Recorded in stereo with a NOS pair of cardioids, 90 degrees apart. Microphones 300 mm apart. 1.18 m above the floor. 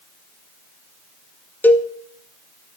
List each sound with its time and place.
1.6 s a cowbell: 5° left, 1.6 m